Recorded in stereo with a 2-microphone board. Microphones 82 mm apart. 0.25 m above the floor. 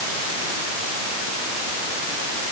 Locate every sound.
Only background noise.